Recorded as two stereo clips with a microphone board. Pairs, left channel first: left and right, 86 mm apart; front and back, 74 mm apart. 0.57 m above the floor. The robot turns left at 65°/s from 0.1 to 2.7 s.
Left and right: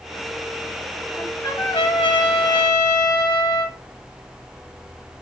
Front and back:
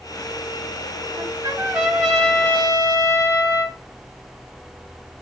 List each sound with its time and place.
1.2 s a trumpet: 150° left, 1.2 m; by 3.8 s 50° left, 1.2 m